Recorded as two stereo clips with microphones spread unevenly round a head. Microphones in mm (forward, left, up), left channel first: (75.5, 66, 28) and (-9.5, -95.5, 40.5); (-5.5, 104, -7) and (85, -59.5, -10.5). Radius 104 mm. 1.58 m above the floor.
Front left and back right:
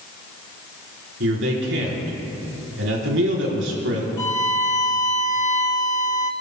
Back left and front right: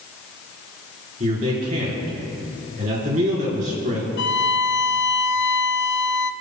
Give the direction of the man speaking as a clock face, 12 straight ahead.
4 o'clock.